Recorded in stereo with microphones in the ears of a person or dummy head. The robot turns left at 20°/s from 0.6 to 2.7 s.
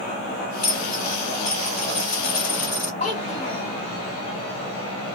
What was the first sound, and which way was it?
A dropped coin, 40° left (ahead or behind).